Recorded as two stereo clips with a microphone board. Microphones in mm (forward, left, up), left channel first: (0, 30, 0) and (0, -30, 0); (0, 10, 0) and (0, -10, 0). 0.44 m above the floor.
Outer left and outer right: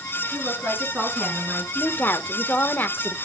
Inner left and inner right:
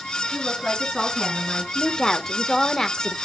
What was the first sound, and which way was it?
A woman speaking, 35° right (ahead or behind).